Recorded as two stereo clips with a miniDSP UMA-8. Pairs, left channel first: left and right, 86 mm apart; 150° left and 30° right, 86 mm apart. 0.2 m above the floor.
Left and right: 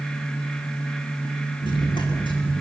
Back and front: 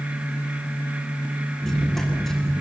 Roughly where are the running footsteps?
Ahead left.